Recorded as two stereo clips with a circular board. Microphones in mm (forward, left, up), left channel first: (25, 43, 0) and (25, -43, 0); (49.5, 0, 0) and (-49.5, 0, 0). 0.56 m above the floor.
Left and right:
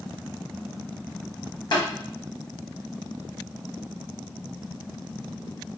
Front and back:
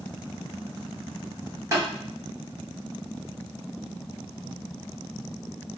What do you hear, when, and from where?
1.7 s tapping: 125° left, 1.8 m